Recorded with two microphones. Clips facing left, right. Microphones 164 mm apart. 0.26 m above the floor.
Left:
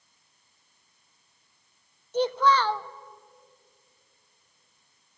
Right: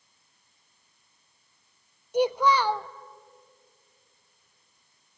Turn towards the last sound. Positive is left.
turn(degrees=-15)  # may be behind; listen again after turning